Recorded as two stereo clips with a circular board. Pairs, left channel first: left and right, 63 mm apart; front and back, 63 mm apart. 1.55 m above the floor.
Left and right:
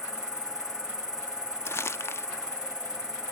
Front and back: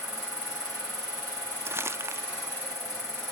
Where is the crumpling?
135° left, 0.7 m.